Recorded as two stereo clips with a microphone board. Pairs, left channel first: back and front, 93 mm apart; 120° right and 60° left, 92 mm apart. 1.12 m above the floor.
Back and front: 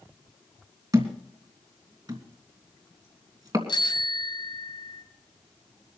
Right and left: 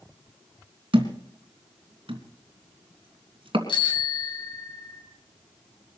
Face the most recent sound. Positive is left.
turn(degrees=-145)